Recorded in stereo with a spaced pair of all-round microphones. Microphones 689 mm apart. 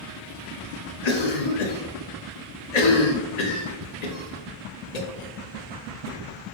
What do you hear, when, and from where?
1.0 s a cough: 70° left (ahead or behind), 0.8 m